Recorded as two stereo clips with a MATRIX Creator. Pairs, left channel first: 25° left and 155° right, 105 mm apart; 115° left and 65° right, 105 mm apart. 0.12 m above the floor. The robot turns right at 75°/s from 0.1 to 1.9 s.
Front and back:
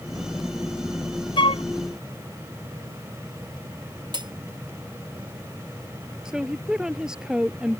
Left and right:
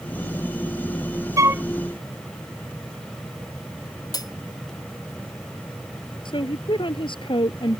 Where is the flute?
15° right; by 1.6 s 5° left.